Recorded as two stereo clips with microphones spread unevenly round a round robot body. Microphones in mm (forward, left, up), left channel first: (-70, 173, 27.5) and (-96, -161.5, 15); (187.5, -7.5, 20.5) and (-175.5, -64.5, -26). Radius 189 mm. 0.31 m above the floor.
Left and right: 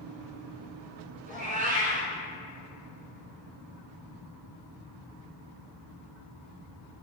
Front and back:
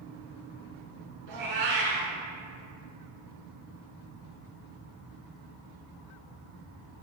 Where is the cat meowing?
160° right, 1.1 m.